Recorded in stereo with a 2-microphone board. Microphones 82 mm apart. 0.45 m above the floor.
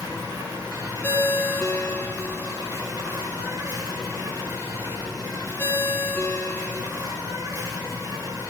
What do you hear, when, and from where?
0.0 s an insect: 50° right (ahead or behind), 2.5 m
1.0 s a ringtone: 15° left (ahead or behind), 2.0 m